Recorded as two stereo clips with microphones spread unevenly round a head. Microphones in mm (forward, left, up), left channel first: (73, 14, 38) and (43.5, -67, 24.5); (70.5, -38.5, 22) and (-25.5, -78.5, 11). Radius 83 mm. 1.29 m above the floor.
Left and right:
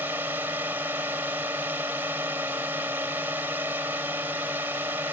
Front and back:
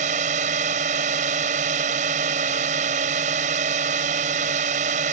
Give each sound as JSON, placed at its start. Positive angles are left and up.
{"t": 0.0, "sound": "a drone", "azimuth_deg": 170}